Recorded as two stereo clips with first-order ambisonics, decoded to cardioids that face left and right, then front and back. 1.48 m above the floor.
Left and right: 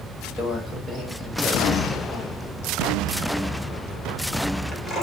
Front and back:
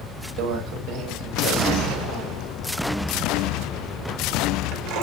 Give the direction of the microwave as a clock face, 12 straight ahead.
7 o'clock.